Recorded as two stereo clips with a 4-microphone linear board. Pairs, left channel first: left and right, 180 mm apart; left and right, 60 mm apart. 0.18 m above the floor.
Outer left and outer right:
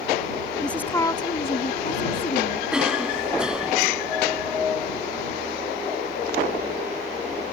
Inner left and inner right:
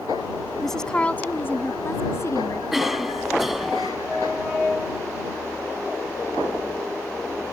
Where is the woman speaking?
5° left (ahead or behind); by 2.6 s 55° left (ahead or behind).